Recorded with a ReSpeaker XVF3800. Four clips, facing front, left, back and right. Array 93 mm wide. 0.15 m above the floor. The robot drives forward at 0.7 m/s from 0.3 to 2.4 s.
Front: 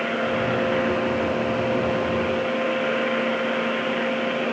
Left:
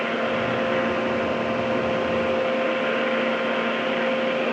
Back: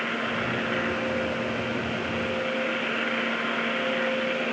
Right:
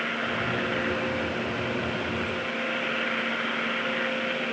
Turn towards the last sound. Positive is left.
No sound to turn to.